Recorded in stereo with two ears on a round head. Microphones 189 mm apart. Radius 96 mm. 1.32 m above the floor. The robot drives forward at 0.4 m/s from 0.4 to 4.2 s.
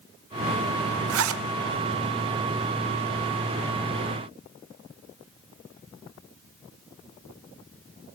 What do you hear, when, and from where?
1.1 s a zipper: 75° right (ahead or behind), 0.9 m; by 1.4 s 70° right (ahead or behind), 0.9 m